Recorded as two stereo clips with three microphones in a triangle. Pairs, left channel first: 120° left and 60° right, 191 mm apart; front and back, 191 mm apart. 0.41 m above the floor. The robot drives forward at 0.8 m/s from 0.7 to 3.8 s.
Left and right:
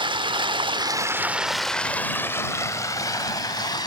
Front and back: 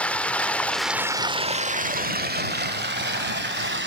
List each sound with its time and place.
0.0 s running water: 75° right, 0.8 m; by 3.9 s 170° right, 2.5 m